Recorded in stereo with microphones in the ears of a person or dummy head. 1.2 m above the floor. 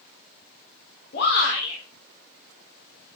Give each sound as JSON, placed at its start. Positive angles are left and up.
{"t": 1.1, "sound": "a shout", "side_deg": 60, "distance_m": 3.5}